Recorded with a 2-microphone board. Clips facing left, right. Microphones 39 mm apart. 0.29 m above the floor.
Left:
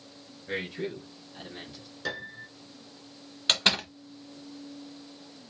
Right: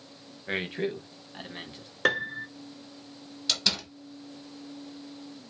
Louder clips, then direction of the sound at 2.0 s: Right 9 dB; 60° right (ahead or behind).